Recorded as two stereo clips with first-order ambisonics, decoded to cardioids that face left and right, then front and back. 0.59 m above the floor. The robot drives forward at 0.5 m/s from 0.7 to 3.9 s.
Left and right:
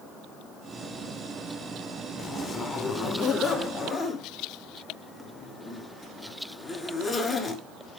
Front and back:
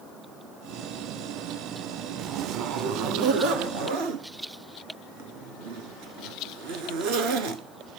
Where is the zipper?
140° left, 0.5 m; by 7.6 s 170° left, 1.2 m.